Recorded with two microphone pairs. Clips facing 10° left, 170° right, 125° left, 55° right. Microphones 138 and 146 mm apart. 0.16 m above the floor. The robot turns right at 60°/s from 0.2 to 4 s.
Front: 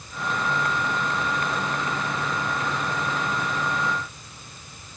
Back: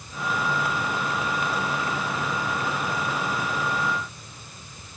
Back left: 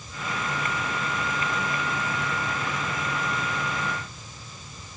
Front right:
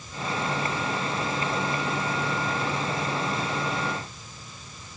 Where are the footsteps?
No footsteps in this recording.